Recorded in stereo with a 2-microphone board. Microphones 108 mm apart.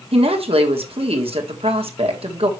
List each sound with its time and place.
0.1 s a woman speaking: 65° right (ahead or behind), 1.7 m